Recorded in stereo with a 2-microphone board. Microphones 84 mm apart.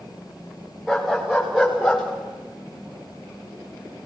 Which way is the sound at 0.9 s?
Centre (ahead or behind).